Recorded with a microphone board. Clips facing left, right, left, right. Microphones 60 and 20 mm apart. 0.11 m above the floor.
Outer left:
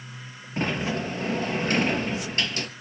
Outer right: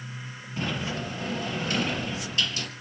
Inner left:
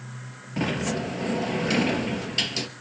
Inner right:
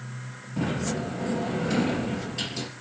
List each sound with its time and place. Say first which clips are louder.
0.6 s a sliding door: outer left 4 dB, inner left 2 dB; 50° left (ahead or behind), 3 m